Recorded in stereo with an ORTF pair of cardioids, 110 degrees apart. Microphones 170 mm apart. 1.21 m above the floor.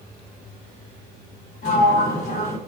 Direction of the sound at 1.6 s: 50° left.